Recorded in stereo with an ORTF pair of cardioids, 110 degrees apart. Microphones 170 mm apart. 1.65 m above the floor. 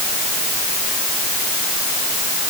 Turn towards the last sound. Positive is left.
No sound to turn to.